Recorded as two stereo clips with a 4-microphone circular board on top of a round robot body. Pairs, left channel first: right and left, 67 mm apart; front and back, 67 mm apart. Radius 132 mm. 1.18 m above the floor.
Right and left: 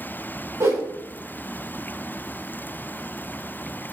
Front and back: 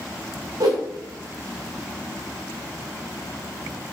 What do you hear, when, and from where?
0.6 s a whoosh: 140° left, 1.4 m